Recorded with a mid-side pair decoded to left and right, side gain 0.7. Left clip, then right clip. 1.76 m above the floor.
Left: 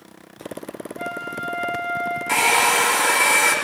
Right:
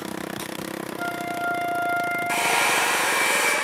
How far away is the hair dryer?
About 4 m.